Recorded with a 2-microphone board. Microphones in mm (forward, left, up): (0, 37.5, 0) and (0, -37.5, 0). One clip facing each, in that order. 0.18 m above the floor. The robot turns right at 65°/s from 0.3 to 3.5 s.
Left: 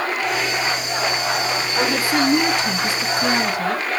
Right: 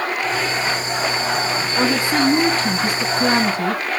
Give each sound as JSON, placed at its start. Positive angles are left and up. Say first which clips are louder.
{"t": 1.8, "sound": "a woman speaking", "louder": "right 1 dB", "azimuth_deg": -170, "distance_m": 2.0}